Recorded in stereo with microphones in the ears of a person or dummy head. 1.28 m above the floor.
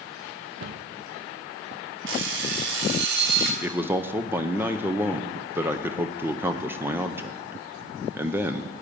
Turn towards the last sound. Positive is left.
turn(degrees=-15)  # may be behind; listen again after turning